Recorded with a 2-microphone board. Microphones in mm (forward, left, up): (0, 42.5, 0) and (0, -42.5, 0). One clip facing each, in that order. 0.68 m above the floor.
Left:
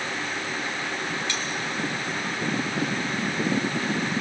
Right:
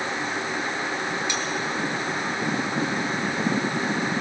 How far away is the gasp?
I don't hear a gasp.